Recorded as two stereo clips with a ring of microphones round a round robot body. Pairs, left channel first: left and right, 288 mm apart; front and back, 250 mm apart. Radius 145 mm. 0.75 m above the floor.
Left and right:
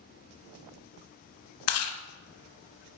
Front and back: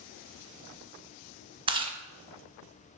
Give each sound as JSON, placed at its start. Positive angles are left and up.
{"t": 1.7, "sound": "chewing", "azimuth_deg": 115, "distance_m": 1.0}